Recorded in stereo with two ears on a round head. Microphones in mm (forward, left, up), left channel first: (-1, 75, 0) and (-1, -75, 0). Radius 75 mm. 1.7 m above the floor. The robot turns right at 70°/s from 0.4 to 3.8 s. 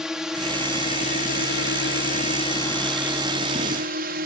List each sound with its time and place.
0.0 s a drone: 5° right (ahead or behind); by 4.3 s 60° right (ahead or behind)